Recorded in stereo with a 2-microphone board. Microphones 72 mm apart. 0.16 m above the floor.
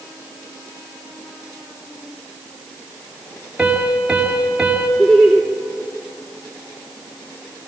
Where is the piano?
10° right (ahead or behind), 2 m.